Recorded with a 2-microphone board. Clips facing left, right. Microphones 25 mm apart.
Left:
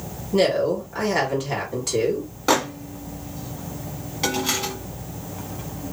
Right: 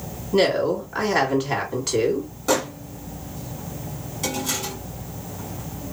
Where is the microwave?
35° left (ahead or behind), 1.0 m.